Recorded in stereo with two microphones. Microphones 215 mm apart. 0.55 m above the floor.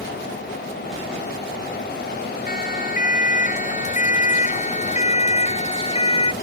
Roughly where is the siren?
Left.